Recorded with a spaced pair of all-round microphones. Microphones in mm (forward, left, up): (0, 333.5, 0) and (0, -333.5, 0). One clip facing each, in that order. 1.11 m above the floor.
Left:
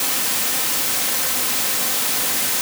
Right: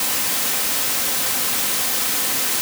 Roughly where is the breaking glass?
I don't hear breaking glass.